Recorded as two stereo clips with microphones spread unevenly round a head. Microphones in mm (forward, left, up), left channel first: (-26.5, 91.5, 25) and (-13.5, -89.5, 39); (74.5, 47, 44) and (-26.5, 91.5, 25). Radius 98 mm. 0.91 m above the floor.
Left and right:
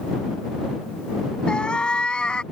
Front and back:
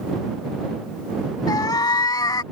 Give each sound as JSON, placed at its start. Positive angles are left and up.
{"t": 1.5, "sound": "a cat meowing", "azimuth_deg": 5}